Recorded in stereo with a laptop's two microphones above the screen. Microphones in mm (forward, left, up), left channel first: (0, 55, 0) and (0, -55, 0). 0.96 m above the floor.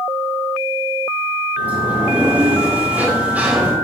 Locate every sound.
1.6 s a sliding door: 15° right (ahead or behind), 2 m